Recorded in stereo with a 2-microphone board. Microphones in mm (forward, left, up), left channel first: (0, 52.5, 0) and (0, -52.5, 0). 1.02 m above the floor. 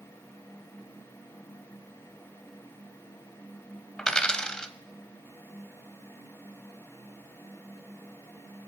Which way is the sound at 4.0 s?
10° left (ahead or behind).